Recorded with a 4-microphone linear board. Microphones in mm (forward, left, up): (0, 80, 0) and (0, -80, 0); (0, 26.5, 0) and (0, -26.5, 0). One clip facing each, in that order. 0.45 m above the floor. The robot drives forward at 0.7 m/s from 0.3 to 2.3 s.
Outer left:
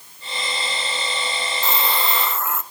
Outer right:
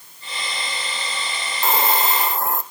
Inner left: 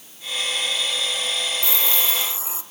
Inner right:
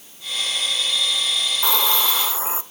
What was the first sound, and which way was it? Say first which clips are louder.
A hiss: outer right 5 dB, inner right 4 dB; 55° right (ahead or behind).